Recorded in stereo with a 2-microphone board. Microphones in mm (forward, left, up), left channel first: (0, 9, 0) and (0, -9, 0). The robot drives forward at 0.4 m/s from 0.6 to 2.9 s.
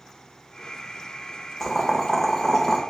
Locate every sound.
1.6 s boiling: 20° left (ahead or behind), 0.8 m; by 2.8 s 25° left (ahead or behind), 0.7 m